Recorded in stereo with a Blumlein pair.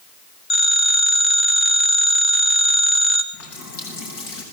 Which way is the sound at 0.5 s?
30° left.